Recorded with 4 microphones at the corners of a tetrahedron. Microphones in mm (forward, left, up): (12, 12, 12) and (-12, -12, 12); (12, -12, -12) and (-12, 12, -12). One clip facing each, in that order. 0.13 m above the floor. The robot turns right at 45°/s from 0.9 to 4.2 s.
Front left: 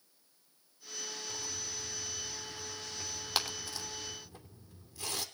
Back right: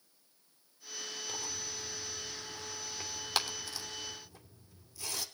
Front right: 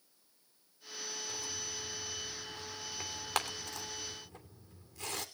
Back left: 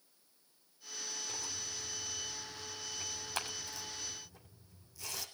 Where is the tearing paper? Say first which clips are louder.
Back right 1 dB, front right 1 dB; 135° right, 3 m; by 5.2 s straight ahead, 3 m.